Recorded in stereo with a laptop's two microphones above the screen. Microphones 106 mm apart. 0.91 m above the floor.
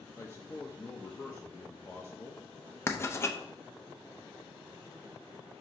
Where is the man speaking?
25° left (ahead or behind), 0.8 m.